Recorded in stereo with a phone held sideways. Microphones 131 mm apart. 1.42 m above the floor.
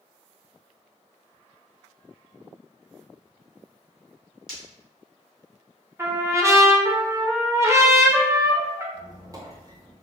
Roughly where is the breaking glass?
Right.